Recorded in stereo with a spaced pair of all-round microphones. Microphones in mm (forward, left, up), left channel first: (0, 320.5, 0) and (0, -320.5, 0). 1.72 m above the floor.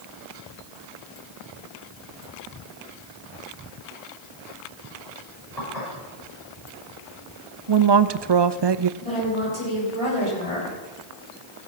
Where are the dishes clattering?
80° left, 5.5 m.